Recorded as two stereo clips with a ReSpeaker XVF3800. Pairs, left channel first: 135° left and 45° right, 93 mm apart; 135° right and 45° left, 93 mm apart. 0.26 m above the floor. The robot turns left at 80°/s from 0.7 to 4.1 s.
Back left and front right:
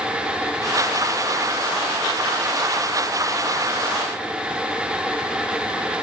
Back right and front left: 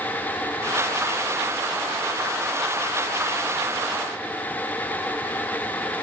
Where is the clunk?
No clunk in this recording.